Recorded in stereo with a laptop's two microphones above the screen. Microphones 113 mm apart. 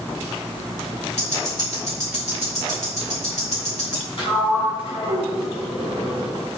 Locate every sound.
1.2 s ticking: 80° left, 3.5 m
4.2 s a sliding door: 55° left (ahead or behind), 3 m